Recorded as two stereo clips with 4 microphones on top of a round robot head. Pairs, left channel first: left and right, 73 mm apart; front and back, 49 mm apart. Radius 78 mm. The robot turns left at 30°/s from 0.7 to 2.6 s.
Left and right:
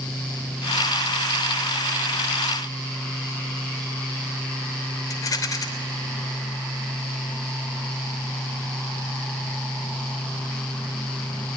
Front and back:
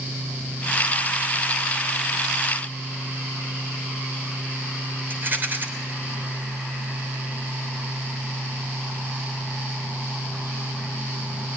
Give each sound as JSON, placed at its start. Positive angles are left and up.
{"t": 5.1, "sound": "a rattle", "azimuth_deg": 130, "distance_m": 3.0}